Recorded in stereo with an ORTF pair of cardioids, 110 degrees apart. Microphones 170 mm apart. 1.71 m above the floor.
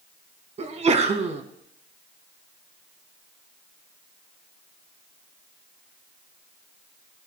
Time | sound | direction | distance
0.6 | a sneeze | 40° right | 2.0 m